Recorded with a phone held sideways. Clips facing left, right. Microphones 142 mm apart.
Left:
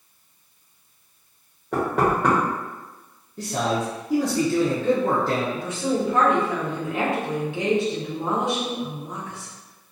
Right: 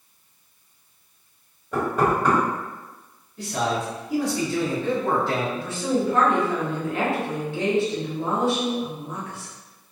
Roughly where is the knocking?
Left.